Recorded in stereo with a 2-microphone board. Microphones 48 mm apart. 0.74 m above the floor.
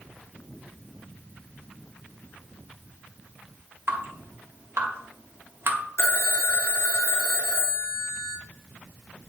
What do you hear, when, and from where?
3.9 s dripping: 55° right (ahead or behind), 1.8 m
6.0 s a phone ringing: 70° left (ahead or behind), 1.2 m